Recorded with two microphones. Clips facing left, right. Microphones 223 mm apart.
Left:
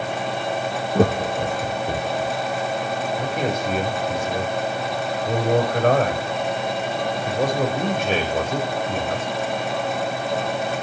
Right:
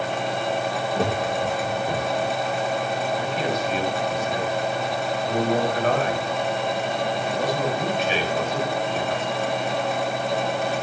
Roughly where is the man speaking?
Left.